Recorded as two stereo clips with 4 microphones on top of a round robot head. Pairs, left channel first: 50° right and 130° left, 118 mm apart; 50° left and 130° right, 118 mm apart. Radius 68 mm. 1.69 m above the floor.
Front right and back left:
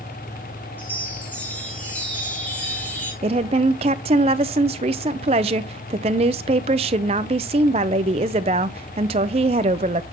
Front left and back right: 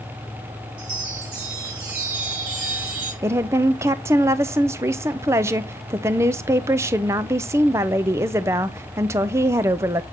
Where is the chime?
125° right, 2.5 m.